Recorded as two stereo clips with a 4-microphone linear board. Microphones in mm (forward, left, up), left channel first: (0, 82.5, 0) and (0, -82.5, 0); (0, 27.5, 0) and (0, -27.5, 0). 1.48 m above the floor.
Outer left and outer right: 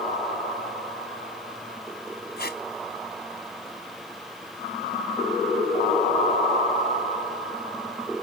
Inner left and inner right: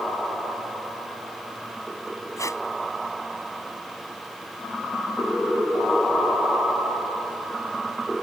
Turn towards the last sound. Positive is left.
turn(degrees=75)  # may be behind; listen again after turning